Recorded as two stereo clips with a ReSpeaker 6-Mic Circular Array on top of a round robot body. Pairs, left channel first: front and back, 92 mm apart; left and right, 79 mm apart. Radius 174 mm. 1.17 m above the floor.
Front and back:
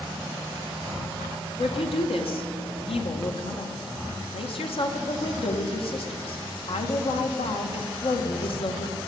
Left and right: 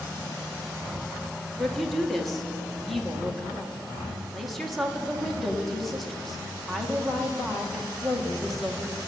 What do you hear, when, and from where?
1.6 s a woman speaking: 5° left, 1.7 m